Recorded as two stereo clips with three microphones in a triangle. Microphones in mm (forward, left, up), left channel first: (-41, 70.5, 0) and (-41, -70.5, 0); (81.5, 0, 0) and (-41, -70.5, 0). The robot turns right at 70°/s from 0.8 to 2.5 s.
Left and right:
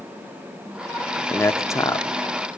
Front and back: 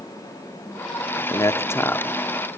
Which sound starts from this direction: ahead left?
A man speaking, at 1.3 s.